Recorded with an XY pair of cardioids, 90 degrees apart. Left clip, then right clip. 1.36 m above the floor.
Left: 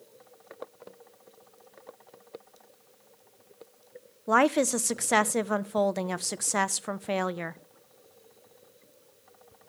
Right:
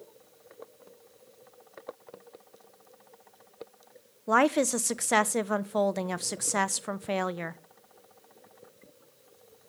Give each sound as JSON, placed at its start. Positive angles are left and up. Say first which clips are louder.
{"t": 4.3, "sound": "a woman speaking", "louder": "left 1 dB", "azimuth_deg": 5, "distance_m": 0.8}